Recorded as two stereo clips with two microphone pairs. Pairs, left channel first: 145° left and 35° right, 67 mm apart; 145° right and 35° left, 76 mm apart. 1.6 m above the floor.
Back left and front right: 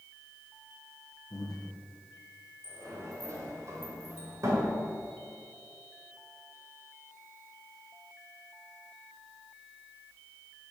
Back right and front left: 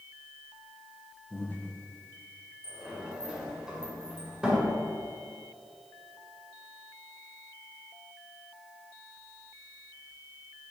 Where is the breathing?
150° left, 1.1 m.